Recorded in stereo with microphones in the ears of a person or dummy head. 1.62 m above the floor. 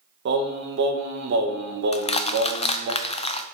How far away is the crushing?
About 0.5 m.